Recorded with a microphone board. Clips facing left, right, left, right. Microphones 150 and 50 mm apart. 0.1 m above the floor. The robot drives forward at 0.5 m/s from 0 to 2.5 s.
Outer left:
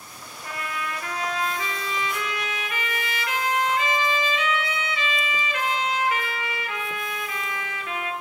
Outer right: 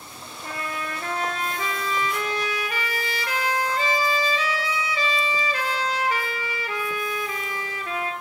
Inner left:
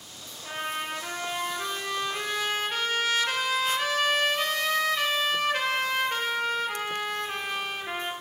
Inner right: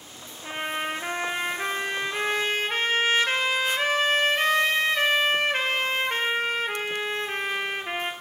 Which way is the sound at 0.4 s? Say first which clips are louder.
Even, inner right 3 dB; 30° right (ahead or behind).